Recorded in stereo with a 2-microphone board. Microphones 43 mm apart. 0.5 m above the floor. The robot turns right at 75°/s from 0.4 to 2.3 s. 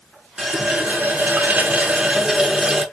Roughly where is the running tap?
Behind.